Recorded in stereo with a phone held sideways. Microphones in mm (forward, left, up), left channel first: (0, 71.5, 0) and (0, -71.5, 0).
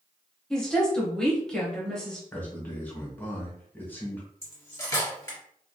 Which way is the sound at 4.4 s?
25° left (ahead or behind).